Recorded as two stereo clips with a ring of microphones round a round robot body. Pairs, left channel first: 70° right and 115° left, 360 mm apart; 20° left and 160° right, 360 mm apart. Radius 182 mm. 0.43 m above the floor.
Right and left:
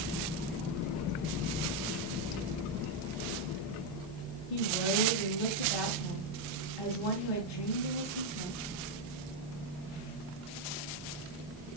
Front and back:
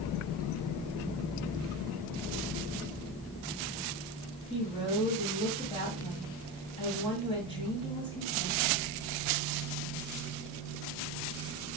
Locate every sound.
4.5 s a woman speaking: 55° right, 2.5 m